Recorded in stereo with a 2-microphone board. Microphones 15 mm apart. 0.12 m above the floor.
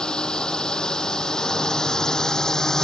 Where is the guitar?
I don't hear a guitar.